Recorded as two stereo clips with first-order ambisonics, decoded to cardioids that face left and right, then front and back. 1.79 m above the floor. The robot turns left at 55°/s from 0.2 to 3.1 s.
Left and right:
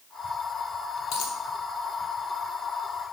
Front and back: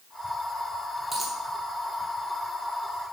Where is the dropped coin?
100° left, 3.5 m; by 1.4 s 85° left, 3.5 m.